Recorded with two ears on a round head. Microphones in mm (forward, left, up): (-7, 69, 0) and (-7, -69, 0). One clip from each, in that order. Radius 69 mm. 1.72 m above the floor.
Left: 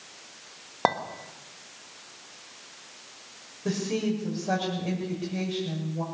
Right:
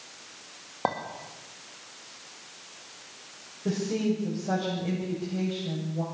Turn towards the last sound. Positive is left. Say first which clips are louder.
# even
turn(degrees=45)  # may be behind; listen again after turning